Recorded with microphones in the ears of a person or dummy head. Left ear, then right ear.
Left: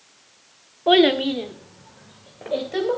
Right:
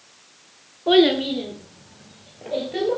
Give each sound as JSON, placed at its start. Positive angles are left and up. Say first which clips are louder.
{"t": 0.9, "sound": "a child speaking", "louder": "left 1 dB", "side_deg": 30, "distance_m": 1.2}